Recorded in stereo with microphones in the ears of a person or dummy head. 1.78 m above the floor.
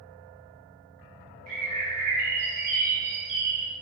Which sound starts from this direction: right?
A bird, at 1.5 s.